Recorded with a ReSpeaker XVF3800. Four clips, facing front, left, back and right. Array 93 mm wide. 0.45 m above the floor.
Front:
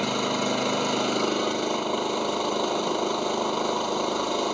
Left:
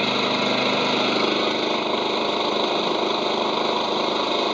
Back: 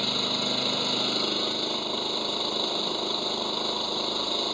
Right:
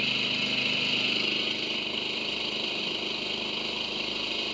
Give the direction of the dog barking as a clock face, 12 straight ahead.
No dog barking in this recording.